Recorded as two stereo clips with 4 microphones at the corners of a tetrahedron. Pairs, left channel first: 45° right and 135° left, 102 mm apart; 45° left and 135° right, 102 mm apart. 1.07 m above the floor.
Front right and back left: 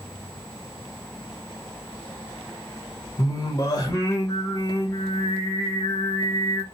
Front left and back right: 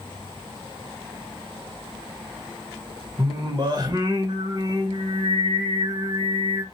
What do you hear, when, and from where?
3.2 s singing: 95° right, 0.8 m